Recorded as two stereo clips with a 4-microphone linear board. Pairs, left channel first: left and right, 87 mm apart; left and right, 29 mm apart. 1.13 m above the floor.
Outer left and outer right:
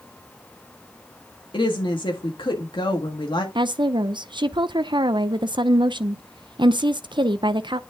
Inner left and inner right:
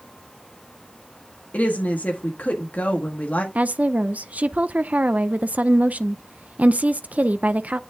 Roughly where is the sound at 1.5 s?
Left.